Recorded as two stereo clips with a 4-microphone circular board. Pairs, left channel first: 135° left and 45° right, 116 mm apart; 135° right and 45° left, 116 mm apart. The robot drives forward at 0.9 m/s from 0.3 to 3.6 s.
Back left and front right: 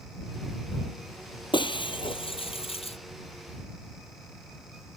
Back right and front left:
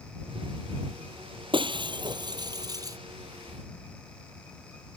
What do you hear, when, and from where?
1.5 s breaking glass: 90° left; by 3.0 s 105° left